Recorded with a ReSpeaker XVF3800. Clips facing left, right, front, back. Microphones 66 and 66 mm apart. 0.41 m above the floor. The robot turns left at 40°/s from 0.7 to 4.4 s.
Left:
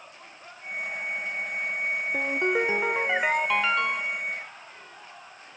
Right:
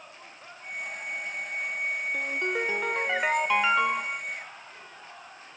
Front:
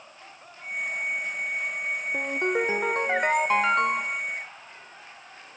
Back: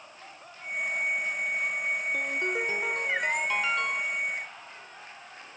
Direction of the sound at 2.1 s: 50° left.